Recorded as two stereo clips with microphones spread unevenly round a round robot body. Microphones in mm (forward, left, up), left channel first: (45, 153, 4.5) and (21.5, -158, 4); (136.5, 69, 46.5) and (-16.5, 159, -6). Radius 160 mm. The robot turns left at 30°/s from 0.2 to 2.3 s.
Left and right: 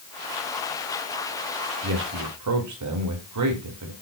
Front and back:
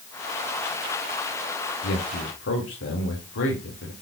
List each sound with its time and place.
1.8 s a man speaking: 45° right, 1.9 m; by 3.9 s 60° right, 1.9 m